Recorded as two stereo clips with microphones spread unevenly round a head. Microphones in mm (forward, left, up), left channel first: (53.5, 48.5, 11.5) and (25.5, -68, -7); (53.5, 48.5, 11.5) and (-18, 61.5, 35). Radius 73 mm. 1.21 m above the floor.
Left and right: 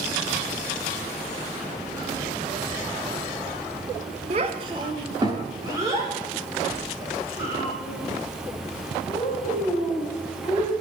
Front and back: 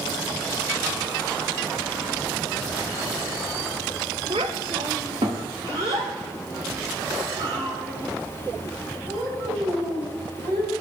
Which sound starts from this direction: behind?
A child speaking, at 4.3 s.